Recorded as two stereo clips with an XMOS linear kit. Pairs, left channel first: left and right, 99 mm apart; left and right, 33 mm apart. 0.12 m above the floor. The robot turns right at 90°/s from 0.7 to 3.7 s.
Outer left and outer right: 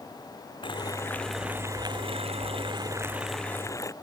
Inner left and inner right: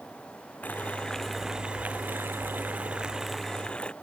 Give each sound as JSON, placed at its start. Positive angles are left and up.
{"t": 0.6, "sound": "boiling", "azimuth_deg": 120}